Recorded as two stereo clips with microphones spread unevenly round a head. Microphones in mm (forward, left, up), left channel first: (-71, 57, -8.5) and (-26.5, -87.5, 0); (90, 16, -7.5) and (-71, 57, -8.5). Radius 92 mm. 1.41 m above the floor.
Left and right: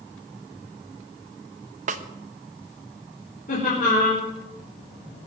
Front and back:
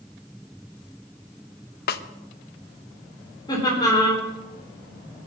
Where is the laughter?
50° left, 4 m.